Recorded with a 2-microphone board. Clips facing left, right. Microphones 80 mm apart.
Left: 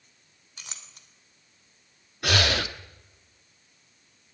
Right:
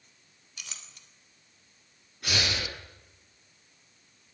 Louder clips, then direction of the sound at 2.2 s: Left 6 dB; 85° left.